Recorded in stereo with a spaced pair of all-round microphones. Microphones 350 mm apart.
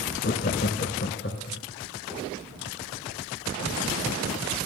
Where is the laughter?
30° left (ahead or behind), 0.6 m; by 1.6 s 35° left (ahead or behind), 1.2 m.